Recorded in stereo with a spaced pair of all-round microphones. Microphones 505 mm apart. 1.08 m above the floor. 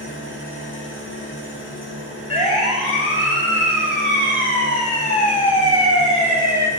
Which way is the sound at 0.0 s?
25° left (ahead or behind).